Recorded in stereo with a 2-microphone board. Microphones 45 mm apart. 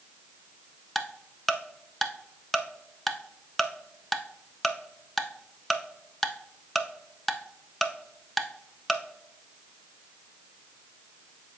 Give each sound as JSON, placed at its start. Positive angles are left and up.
{"t": 0.9, "sound": "ticking", "side_deg": 5, "distance_m": 0.6}